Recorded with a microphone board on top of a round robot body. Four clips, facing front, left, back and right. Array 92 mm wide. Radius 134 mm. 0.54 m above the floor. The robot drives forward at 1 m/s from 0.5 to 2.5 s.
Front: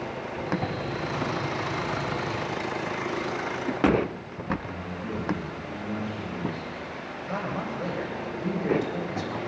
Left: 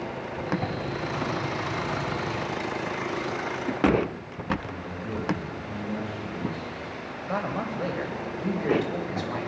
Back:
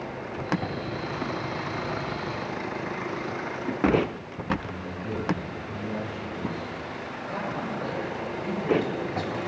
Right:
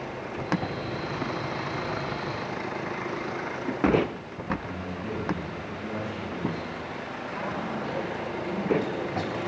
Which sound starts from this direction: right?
A man speaking, at 4.6 s.